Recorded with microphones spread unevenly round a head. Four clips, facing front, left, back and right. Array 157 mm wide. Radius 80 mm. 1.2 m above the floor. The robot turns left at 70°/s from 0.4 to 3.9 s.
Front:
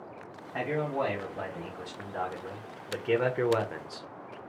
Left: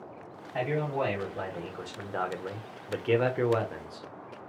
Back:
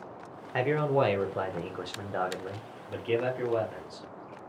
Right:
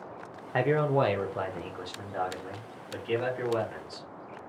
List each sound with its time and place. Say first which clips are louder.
0.5 s a man speaking: right 5 dB, back 5 dB; 110° right, 1.0 m; by 4.1 s 15° left, 1.0 m